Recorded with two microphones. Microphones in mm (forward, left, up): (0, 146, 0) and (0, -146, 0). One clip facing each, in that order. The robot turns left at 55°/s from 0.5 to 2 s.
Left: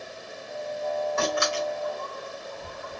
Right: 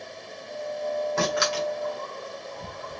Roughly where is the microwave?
No microwave in this recording.